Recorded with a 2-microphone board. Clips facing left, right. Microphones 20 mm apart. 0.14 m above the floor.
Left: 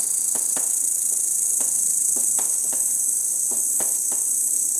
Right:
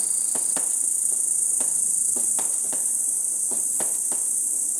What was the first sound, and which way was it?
An insect, 60° left (ahead or behind).